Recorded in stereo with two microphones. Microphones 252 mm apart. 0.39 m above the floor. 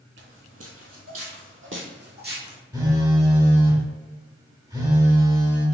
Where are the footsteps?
50° right (ahead or behind), 1.0 m; by 2.6 s 35° right (ahead or behind), 1.6 m.